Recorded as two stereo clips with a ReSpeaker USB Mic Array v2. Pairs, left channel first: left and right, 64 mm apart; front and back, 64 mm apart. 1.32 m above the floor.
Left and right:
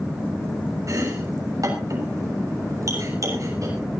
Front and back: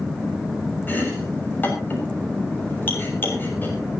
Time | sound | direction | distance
0.9 | chopping | 60° right | 6.5 m